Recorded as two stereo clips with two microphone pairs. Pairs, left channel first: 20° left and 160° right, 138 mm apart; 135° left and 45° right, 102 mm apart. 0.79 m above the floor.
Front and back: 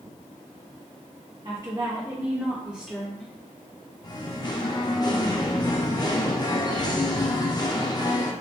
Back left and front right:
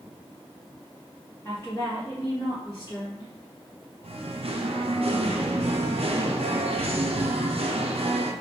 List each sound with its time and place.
1.4 s a woman speaking: straight behind, 1.1 m; by 3.3 s 100° left, 1.3 m
4.0 s singing: 35° right, 0.5 m